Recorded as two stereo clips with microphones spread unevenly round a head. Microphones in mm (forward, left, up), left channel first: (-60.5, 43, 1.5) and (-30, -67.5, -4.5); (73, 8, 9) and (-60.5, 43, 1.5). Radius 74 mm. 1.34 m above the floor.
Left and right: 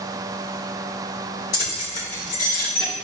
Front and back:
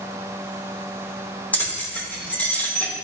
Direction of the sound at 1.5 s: 65° left.